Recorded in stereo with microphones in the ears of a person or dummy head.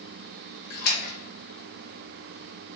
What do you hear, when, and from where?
0.7 s a splash: 50° left (ahead or behind), 1.2 m